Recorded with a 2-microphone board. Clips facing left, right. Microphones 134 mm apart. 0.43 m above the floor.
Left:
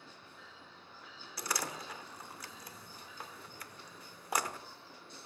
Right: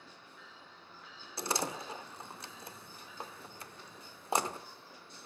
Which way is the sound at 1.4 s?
25° right (ahead or behind).